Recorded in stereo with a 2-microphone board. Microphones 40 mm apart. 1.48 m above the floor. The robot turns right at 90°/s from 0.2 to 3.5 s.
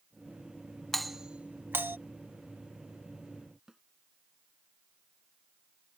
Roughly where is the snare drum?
Centre.